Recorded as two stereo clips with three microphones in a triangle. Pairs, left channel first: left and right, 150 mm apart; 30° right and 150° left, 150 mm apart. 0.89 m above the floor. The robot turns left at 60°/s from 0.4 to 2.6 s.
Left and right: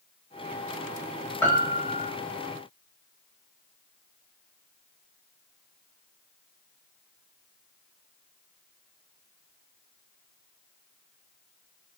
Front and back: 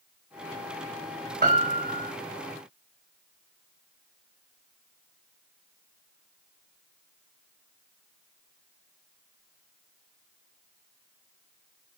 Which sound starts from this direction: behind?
A piano, at 1.4 s.